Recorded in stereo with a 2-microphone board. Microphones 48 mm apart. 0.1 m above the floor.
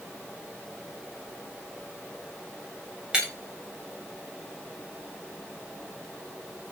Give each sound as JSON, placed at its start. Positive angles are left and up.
{"t": 3.1, "sound": "breaking glass", "side_deg": -15, "distance_m": 7.0}